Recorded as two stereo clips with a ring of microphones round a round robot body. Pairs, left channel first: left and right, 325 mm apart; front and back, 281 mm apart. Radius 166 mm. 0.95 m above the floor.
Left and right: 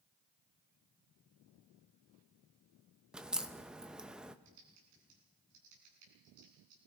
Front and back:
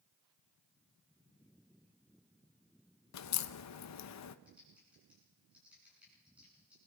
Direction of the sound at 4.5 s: 95° right.